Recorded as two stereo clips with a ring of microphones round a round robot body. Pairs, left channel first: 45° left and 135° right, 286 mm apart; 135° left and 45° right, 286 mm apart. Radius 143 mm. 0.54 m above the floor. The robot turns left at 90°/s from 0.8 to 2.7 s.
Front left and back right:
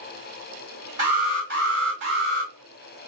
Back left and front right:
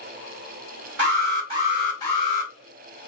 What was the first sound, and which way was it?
An alarm, 60° right.